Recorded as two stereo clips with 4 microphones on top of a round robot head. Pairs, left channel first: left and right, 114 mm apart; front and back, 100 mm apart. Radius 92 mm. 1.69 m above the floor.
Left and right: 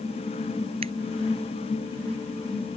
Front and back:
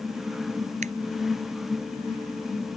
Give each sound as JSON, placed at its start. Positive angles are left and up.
{"t": 0.8, "sound": "scissors", "azimuth_deg": -145}